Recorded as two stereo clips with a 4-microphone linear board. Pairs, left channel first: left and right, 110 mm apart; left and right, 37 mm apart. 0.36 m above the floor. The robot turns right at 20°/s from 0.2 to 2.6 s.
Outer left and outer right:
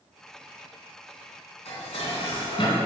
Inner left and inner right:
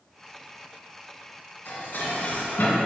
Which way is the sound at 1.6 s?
70° left (ahead or behind).